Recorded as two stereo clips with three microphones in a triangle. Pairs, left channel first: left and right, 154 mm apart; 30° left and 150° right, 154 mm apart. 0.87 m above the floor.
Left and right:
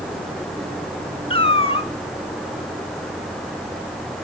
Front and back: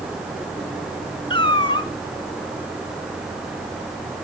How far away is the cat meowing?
About 0.8 m.